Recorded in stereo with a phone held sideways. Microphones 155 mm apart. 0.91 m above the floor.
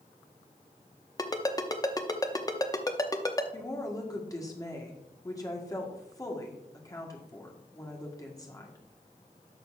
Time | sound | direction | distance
1.2 | a ringtone | 25° left (ahead or behind) | 0.7 m
3.5 | a woman speaking | 25° left (ahead or behind) | 1.6 m